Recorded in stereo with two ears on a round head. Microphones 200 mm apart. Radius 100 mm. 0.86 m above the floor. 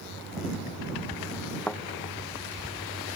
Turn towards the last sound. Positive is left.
turn(degrees=5)  # may be behind; listen again after turning